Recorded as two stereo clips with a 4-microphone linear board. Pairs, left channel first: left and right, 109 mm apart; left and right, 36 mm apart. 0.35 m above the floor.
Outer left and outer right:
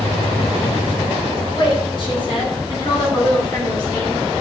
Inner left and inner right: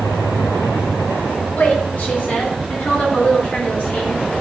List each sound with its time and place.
1.6 s a woman speaking: 55° left (ahead or behind), 2.5 m; by 4.2 s 40° left (ahead or behind), 4.5 m